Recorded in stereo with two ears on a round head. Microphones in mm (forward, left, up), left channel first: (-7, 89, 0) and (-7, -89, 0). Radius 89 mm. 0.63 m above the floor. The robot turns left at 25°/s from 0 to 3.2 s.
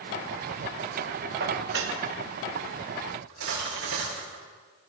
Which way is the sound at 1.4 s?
50° right (ahead or behind).